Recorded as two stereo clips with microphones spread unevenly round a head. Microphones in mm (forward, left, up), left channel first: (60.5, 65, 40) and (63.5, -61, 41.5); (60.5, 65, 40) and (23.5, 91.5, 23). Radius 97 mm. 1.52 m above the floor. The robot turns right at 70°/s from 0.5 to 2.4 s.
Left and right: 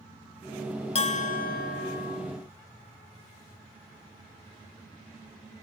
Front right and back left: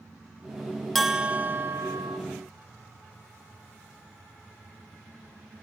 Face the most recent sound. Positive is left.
turn(degrees=150)